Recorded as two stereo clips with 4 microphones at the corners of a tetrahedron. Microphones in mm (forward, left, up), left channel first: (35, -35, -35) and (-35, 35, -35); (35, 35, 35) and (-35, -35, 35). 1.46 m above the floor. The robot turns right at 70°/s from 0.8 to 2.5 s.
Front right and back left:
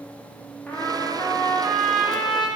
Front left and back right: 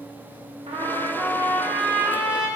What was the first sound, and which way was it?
A trumpet, 120° right.